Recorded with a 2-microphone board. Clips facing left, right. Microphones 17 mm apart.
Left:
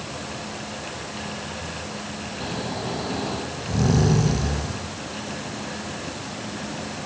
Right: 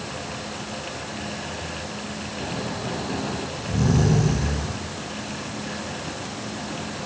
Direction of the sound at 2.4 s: 30° left (ahead or behind).